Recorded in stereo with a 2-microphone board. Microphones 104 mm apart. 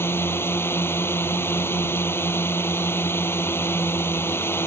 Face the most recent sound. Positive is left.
turn(degrees=25)  # may be behind; listen again after turning